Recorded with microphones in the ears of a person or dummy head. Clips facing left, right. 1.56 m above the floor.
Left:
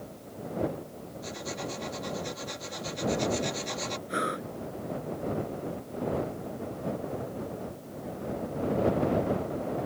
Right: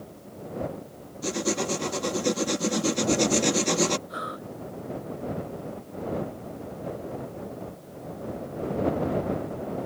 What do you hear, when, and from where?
1.2 s writing: 75° right (ahead or behind)
4.1 s breathing: 30° left (ahead or behind)